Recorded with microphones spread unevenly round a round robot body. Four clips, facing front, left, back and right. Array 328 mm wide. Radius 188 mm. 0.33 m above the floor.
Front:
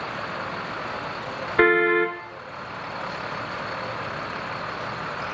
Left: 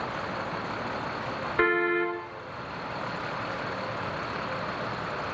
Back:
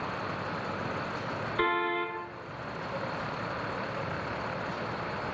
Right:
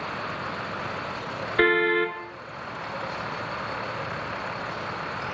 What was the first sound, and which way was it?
A car horn, 20° right.